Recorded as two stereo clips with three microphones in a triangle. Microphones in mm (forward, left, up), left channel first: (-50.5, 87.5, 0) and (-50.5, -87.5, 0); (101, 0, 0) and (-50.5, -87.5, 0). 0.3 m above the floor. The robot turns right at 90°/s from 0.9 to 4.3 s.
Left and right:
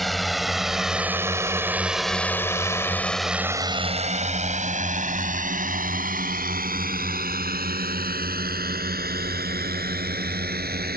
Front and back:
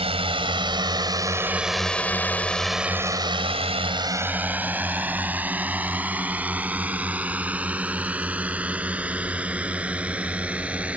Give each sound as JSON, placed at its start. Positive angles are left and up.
{"t": 0.0, "sound": "a drone", "azimuth_deg": 180}